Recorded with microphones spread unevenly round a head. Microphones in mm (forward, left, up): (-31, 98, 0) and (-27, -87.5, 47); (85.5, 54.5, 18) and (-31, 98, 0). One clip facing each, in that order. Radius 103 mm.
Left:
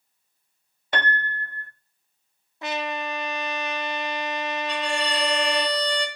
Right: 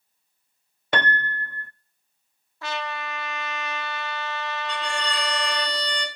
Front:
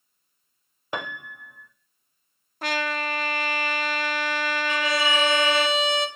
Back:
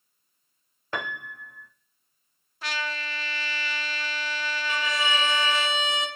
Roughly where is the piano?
Right.